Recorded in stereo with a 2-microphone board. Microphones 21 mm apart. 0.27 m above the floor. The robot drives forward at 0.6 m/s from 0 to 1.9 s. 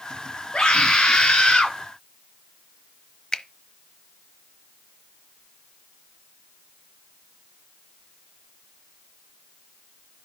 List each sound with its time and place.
0.5 s a scream: 50° left (ahead or behind), 5.5 m; by 1.8 s 60° left (ahead or behind), 5 m
3.3 s a finger snap: 35° left (ahead or behind), 1.0 m